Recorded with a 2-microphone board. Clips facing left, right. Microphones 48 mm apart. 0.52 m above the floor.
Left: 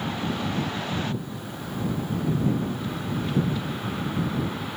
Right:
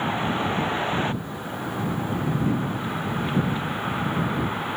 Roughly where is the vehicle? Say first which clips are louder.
Right 4 dB; right.